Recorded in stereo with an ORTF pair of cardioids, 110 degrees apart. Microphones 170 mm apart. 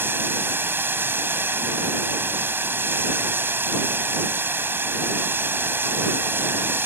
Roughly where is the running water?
Ahead.